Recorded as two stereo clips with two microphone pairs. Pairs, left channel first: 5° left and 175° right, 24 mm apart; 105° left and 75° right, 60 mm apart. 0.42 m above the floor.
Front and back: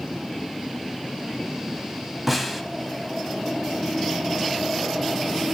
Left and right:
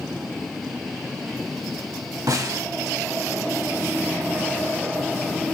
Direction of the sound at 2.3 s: 85° right.